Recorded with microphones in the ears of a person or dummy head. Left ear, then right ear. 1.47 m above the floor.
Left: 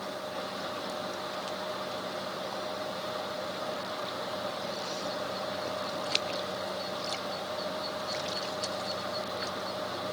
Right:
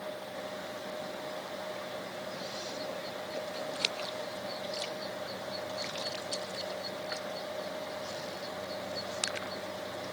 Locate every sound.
Only background noise.